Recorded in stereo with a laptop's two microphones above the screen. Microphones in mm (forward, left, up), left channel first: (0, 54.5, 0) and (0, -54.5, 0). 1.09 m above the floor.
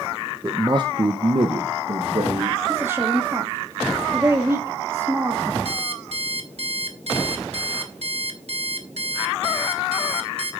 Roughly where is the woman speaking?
Right.